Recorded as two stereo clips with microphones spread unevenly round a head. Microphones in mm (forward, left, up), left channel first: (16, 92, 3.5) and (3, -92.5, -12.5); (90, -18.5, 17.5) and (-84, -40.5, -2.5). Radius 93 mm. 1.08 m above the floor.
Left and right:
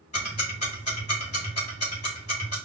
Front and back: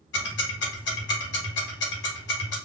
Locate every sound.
0.1 s ticking: 30° left, 1.4 m